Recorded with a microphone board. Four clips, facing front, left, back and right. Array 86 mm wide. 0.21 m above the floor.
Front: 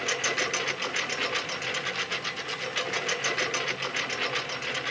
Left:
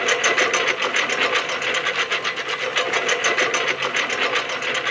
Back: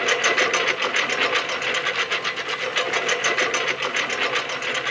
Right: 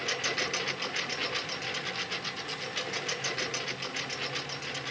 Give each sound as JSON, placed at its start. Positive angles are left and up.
{"t": 0.0, "sound": "a lawn mower", "azimuth_deg": 125}